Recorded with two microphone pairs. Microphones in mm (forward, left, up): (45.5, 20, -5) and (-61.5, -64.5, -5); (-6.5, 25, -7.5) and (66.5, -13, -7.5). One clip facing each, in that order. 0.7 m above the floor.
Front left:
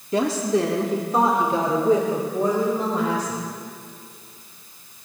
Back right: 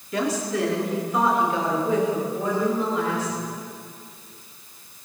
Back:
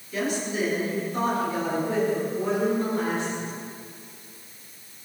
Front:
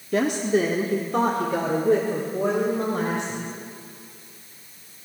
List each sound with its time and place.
0.1 s a woman speaking: 20° right, 1.4 m; by 3.5 s 10° right, 3.5 m